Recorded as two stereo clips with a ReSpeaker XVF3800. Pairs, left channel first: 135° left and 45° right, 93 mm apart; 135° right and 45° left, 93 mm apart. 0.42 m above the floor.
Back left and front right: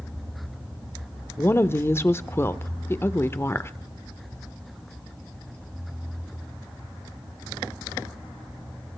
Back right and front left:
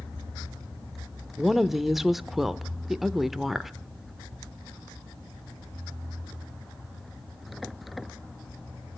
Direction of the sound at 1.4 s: 130° left.